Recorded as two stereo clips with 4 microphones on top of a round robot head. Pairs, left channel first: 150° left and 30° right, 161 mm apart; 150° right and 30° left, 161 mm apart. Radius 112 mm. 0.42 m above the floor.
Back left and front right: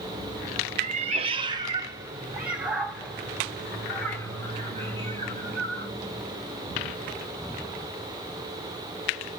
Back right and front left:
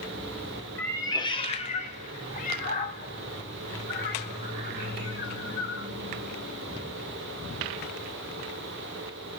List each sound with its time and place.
0.8 s a cat meowing: 70° right, 1.1 m; by 5.9 s 140° right, 3.5 m